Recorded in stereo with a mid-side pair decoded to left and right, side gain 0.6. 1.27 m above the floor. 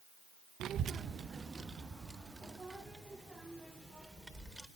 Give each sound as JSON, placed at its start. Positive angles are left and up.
{"t": 0.6, "sound": "a child speaking", "azimuth_deg": -55, "distance_m": 0.7}